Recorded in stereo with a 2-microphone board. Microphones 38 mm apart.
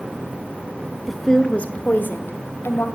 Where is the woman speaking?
Centre (ahead or behind), 1.3 m; by 2.9 s 75° left (ahead or behind), 2.5 m.